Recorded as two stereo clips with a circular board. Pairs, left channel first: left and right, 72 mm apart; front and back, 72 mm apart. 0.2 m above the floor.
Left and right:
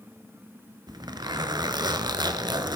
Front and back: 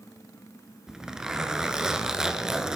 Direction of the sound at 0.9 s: 100° right.